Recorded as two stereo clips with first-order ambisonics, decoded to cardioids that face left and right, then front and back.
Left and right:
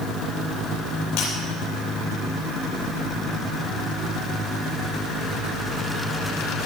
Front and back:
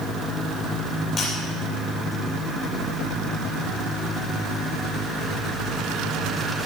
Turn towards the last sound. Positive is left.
turn(degrees=60)